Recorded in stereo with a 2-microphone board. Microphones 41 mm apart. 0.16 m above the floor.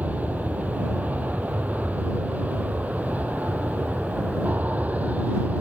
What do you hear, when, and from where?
0.0 s an aircraft: 40° right (ahead or behind)